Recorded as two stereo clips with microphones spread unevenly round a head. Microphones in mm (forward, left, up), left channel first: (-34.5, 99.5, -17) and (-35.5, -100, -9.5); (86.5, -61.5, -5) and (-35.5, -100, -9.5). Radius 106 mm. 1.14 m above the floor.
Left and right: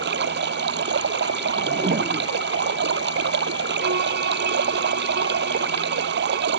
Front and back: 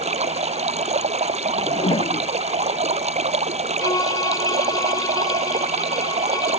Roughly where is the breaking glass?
No breaking glass in this recording.